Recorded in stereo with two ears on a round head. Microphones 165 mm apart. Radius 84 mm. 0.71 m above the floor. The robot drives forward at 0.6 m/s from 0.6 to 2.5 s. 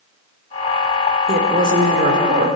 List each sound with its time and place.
1.3 s a woman speaking: 50° right (ahead or behind), 1.9 m; by 2.5 s 40° right (ahead or behind), 2.5 m